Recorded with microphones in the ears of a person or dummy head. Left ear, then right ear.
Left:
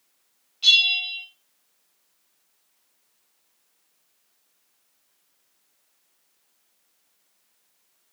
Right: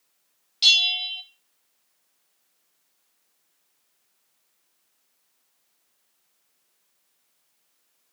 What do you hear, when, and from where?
0.6 s a bell: 65° right (ahead or behind), 0.7 m